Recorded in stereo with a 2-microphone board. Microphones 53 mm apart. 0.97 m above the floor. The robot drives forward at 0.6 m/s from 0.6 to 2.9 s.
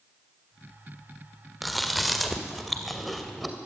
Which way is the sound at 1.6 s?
Centre (ahead or behind).